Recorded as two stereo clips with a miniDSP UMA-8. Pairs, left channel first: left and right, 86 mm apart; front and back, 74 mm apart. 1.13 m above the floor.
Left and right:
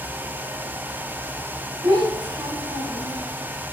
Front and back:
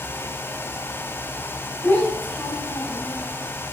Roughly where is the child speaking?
Ahead right.